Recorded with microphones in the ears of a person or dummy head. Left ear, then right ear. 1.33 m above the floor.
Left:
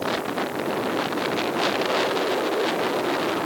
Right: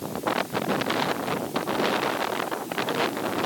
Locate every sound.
Only background noise.